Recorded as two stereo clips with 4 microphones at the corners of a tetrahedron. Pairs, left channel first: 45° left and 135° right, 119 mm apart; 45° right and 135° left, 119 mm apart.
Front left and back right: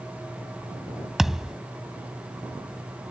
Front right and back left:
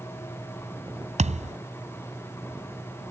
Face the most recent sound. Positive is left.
turn(degrees=140)